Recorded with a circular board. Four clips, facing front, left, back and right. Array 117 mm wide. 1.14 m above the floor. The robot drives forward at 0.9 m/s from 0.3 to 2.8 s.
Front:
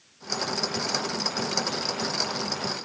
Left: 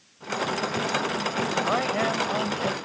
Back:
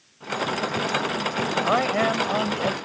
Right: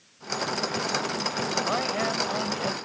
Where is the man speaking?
170° left; by 2.7 s 175° left.